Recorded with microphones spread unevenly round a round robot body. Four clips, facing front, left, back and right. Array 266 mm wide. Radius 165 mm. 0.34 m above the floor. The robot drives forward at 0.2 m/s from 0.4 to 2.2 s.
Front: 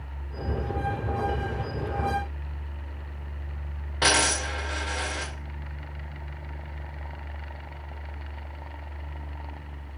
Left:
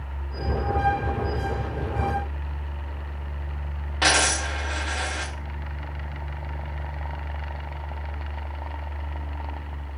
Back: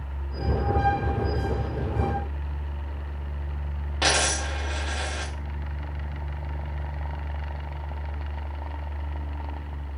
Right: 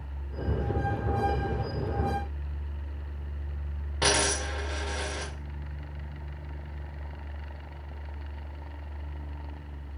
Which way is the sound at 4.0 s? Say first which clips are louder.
Left 4 dB, front 1 dB; 145° right.